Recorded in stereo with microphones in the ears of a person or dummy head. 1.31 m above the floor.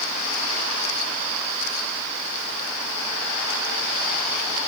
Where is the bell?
No bell in this recording.